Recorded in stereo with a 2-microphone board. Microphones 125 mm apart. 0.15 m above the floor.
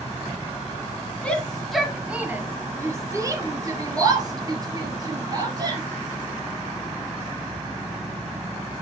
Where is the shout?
10° left (ahead or behind), 1.4 m; by 5.8 s 35° right (ahead or behind), 4 m.